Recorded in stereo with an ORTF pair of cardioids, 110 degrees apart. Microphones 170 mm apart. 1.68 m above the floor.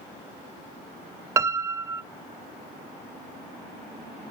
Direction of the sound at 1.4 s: 15° right.